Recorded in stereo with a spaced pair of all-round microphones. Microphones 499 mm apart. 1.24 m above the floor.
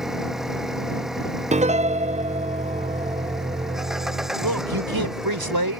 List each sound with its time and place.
0.0 s an engine running: centre (ahead or behind)
1.5 s a piano: 15° right (ahead or behind)
4.4 s a man speaking: 40° right (ahead or behind)